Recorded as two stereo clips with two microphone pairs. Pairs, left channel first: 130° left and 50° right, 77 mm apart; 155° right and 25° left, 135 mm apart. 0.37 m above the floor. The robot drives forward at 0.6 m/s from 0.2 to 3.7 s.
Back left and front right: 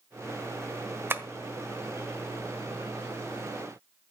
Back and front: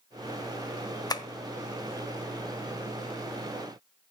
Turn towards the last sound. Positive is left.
turn(degrees=-150)